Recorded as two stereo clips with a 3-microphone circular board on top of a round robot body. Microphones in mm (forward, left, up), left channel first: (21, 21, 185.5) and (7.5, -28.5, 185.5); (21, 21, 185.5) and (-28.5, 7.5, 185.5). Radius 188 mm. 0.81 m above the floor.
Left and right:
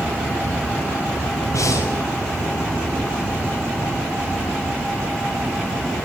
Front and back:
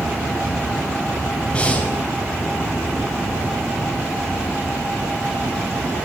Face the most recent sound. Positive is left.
turn(degrees=85)